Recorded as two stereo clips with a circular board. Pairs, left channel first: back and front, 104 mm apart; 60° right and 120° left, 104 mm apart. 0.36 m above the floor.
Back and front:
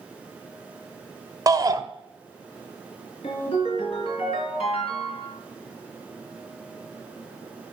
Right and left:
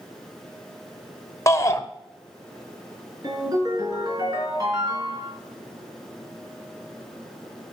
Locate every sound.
1.5 s a shout: 20° right, 1.0 m
3.2 s a ringtone: 170° left, 3.5 m